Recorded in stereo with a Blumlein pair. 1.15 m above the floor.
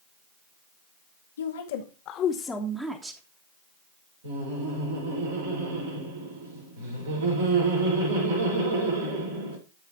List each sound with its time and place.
1.4 s a woman speaking: 70° left, 1.8 m; by 3.2 s 30° right, 1.7 m
4.2 s laughter: 65° right, 4 m